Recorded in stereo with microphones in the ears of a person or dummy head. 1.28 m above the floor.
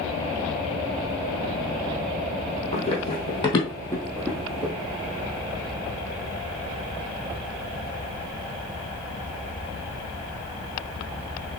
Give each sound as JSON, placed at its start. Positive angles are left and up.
{"t": 2.7, "sound": "running footsteps", "side_deg": 40, "distance_m": 3.0}